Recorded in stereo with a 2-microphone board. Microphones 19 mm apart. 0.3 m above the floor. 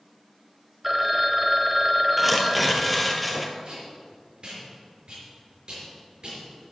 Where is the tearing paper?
5° right (ahead or behind), 1.0 m.